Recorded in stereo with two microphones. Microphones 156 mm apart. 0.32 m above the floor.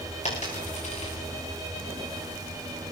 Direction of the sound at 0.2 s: 50° left (ahead or behind).